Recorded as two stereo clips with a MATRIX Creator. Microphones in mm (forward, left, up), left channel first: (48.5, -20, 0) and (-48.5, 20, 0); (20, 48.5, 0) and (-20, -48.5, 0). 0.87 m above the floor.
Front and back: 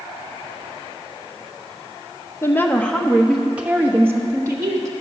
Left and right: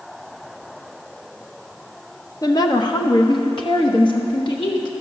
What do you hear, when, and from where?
2.4 s a woman speaking: 30° left, 0.8 m; by 4.9 s 105° left, 1.5 m